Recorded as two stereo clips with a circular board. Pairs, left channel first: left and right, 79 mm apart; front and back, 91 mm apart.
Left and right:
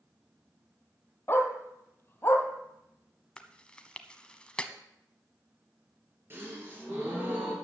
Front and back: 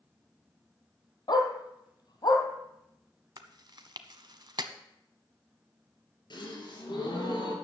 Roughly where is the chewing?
Behind.